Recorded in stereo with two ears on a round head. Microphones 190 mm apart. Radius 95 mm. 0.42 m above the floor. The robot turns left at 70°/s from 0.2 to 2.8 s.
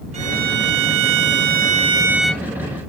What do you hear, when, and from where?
0.1 s a violin: 35° right; by 2.5 s 165° left